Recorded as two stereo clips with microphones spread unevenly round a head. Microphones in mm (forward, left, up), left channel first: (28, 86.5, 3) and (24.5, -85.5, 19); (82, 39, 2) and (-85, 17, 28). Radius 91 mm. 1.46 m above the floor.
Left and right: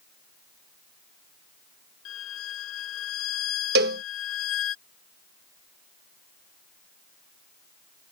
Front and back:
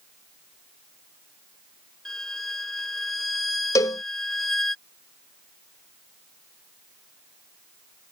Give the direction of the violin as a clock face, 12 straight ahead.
9 o'clock.